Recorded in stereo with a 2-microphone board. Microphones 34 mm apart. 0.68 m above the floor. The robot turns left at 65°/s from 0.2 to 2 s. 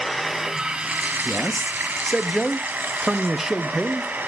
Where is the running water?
Straight ahead, 1.2 m; by 4.3 s 120° right, 1.2 m.